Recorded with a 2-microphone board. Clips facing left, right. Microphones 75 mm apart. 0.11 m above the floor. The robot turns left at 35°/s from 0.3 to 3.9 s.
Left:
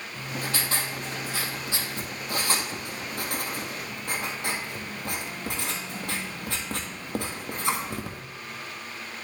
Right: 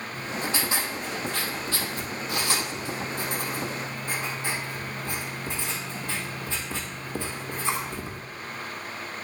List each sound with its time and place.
0.1 s writing: 150° right, 1.5 m; by 8.2 s 85° left, 1.5 m